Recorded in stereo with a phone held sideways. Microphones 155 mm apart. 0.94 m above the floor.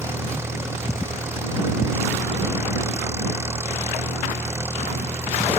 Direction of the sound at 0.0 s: 15° right (ahead or behind).